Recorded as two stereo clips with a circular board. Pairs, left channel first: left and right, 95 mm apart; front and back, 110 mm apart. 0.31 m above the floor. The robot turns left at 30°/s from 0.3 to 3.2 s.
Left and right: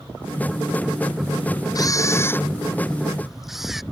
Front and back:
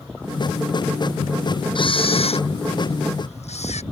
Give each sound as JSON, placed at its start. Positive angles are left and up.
{"t": 1.8, "sound": "a camera shutter", "azimuth_deg": 40}